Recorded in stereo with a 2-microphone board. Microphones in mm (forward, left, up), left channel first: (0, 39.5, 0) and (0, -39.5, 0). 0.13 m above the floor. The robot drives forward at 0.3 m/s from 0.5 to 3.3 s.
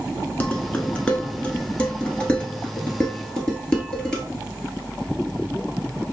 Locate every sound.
0.4 s dishes clattering: 20° left (ahead or behind), 0.8 m; by 4.2 s 10° left (ahead or behind), 1.4 m